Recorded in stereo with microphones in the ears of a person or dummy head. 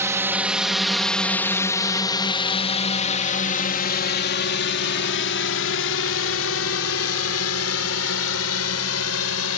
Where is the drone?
10° right (ahead or behind); by 9.6 s 80° left.